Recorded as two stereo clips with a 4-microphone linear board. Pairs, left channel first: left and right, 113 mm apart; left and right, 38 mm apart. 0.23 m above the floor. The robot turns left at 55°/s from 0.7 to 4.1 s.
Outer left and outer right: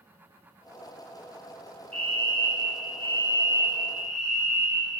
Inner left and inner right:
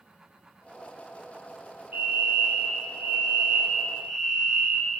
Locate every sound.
1.9 s a fire alarm: 65° right, 8 m; by 4.9 s 175° left, 8 m